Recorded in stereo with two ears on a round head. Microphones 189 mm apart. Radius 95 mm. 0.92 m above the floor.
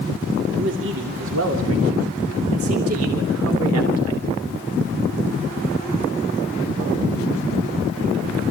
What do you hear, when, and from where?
0.6 s a man speaking: 65° right (ahead or behind), 2.5 m; by 4.2 s 75° right (ahead or behind), 3.5 m